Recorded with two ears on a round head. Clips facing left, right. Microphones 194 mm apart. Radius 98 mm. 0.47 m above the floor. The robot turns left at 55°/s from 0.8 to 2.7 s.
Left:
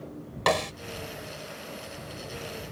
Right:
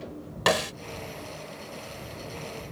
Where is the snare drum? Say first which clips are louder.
Right 1 dB; 10° right (ahead or behind).